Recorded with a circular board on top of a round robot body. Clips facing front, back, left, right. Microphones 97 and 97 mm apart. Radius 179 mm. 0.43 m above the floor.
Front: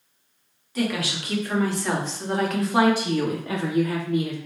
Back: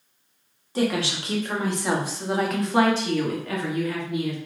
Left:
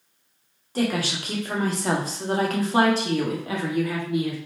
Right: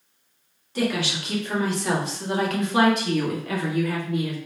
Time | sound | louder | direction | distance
0.8 | a woman speaking | back 2 dB, even | 130° left | 1.7 m